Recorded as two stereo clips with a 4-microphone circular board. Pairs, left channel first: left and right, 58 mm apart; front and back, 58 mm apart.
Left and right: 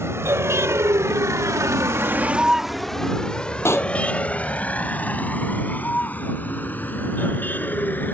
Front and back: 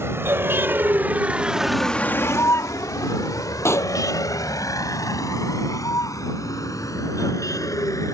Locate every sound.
0.0 s a vehicle: 130° right; by 8.2 s 30° left
3.6 s a pop: 45° left